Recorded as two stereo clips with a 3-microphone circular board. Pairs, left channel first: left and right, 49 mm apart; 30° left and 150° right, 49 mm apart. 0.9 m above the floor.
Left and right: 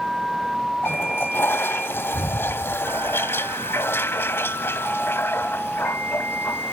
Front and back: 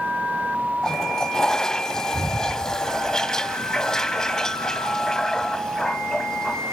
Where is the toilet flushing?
105° left, 1.1 m.